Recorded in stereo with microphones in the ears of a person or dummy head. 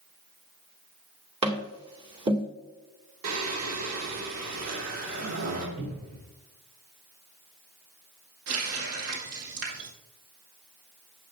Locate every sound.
1.4 s tapping: 25° right (ahead or behind), 2 m
3.2 s singing: 80° right, 2.5 m
5.8 s a cupboard door: 55° right (ahead or behind), 4.5 m
8.5 s a running tap: 75° right (ahead or behind), 2.5 m